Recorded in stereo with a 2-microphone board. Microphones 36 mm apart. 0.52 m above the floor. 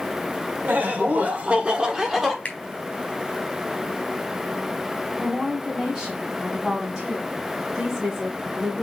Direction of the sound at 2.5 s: 40° left (ahead or behind).